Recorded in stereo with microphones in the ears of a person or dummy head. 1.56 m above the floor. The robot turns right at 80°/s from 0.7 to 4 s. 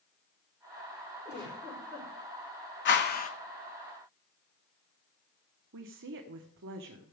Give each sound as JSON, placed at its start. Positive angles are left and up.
{"t": 1.2, "sound": "a giggle", "azimuth_deg": -35, "distance_m": 5.5}
{"t": 2.9, "sound": "a whoosh", "azimuth_deg": 95, "distance_m": 1.1}
{"t": 5.7, "sound": "a woman speaking", "side_deg": -70, "distance_m": 1.0}